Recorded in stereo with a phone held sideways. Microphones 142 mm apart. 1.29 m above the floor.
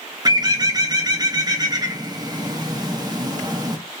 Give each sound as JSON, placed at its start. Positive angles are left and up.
{"t": 0.2, "sound": "a bird", "side_deg": -30, "distance_m": 0.6}